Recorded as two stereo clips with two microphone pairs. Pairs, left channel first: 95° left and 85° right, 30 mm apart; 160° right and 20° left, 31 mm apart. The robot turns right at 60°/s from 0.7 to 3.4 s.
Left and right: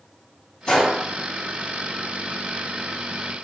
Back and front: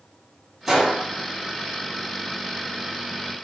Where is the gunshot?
100° left, 1.8 m; by 1.0 s 115° left, 1.8 m.